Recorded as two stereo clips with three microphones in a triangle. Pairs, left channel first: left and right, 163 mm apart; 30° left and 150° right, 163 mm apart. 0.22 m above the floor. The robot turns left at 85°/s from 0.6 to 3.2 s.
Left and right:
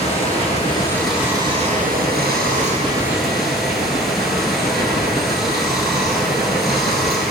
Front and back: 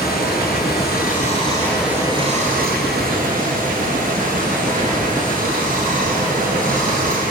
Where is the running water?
40° left, 2.5 m; by 7.3 s straight behind, 2.5 m.